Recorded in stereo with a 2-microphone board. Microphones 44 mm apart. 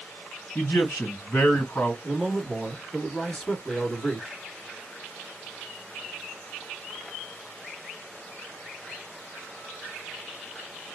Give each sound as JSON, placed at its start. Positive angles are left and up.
{"t": 0.6, "sound": "a man speaking", "side_deg": 55, "distance_m": 2.0}
{"t": 2.0, "sound": "a man speaking", "side_deg": 15, "distance_m": 1.2}